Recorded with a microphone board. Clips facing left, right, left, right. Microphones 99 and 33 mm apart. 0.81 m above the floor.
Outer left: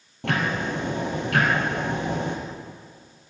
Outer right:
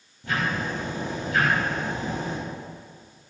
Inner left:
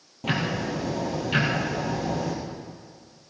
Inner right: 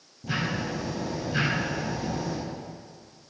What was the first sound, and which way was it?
Ticking, 70° left (ahead or behind).